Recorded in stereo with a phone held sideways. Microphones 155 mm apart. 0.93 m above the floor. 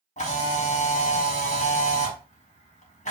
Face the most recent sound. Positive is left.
turn(degrees=45)  # may be behind; listen again after turning